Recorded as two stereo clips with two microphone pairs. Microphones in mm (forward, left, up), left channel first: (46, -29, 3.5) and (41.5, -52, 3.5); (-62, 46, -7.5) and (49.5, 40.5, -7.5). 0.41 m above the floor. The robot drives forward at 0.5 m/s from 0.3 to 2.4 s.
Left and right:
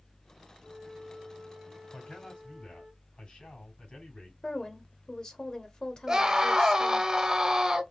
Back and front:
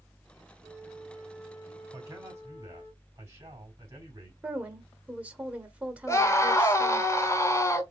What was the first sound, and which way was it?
A flute, 75° right.